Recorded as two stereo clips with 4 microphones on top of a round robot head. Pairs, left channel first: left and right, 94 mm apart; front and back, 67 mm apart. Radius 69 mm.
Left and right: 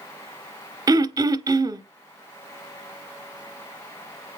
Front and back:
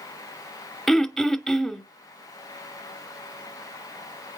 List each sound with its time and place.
0.9 s throat clearing: 85° right, 0.9 m